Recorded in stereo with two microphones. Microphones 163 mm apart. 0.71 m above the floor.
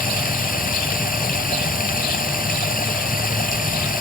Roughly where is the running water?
Left.